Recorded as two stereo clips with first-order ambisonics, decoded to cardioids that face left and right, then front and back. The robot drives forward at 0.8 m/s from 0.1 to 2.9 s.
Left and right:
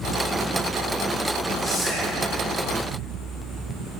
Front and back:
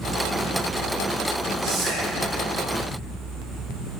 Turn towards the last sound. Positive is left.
turn(degrees=175)